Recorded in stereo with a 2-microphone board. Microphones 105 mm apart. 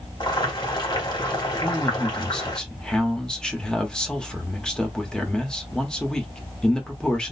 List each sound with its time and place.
0.2 s boiling: 45° left (ahead or behind), 2 m
1.6 s a man speaking: 10° left (ahead or behind), 1.2 m